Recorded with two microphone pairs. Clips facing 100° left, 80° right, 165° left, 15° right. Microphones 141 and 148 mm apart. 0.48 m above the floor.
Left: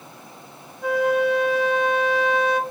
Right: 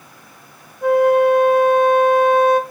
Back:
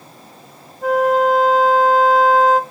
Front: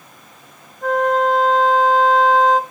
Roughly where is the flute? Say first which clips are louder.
Right 7 dB, back 2 dB; behind right.